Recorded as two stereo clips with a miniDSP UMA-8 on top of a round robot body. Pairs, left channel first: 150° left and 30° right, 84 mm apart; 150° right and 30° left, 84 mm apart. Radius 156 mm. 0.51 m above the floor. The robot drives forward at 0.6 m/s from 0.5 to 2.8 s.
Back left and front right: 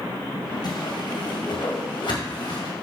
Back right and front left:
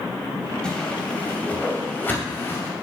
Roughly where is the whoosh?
Behind left.